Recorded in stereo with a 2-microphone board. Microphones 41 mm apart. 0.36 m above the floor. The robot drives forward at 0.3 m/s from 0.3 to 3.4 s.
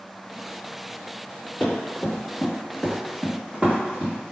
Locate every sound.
1.6 s running footsteps: 5° left (ahead or behind), 1.9 m; by 4.3 s 30° right (ahead or behind), 1.7 m